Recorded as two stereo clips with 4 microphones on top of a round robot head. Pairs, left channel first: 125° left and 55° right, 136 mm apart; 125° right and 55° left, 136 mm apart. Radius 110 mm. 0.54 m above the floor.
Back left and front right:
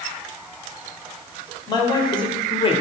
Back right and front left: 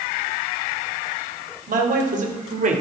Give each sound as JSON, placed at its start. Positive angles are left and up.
{"t": 1.7, "sound": "a man speaking", "azimuth_deg": 65, "distance_m": 3.0}